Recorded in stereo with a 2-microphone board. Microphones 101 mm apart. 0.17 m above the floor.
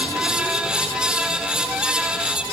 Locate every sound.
Only background noise.